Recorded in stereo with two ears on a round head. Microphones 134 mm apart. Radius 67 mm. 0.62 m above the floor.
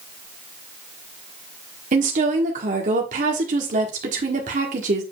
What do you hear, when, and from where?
1.9 s a woman speaking: 55° right (ahead or behind), 1.5 m